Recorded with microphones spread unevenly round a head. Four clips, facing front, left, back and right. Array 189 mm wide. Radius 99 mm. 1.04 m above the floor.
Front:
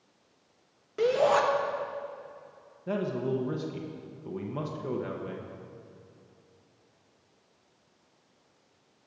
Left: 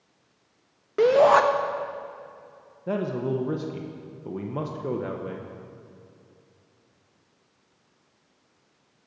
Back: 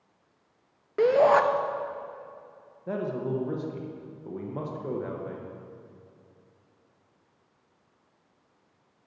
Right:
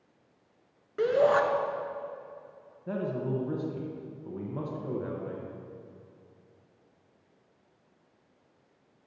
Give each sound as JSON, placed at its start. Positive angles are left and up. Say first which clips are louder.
{"t": 1.0, "sound": "a shout", "louder": "left 7 dB, back 4 dB", "azimuth_deg": 110, "distance_m": 0.9}
{"t": 2.9, "sound": "a man speaking", "louder": "left 5 dB, even", "azimuth_deg": 65, "distance_m": 0.8}